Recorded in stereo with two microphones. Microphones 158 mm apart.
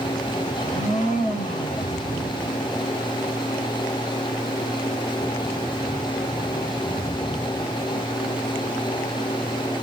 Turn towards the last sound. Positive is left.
turn(degrees=50)  # may be behind; listen again after turning